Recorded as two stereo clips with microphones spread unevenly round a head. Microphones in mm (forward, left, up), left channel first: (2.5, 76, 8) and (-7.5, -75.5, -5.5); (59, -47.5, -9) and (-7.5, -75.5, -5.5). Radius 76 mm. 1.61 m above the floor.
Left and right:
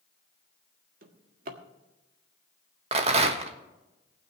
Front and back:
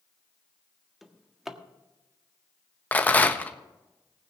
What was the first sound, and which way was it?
A drawer, 75° right.